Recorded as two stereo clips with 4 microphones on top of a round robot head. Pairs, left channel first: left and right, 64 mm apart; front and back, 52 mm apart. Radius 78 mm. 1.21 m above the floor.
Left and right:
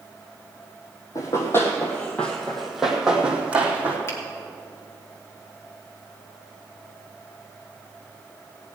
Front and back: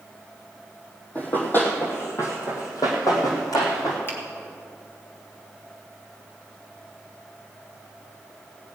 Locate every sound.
1.1 s running footsteps: 55° left, 1.8 m; by 4.0 s 30° right, 2.5 m
4.1 s a finger snap: 40° left, 2.5 m